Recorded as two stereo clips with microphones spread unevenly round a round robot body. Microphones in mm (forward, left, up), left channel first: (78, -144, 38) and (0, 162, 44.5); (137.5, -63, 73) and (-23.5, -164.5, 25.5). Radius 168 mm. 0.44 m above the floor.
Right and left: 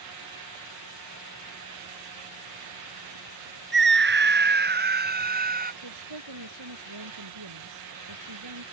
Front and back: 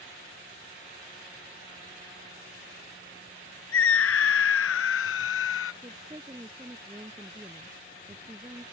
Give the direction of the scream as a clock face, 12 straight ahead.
10 o'clock.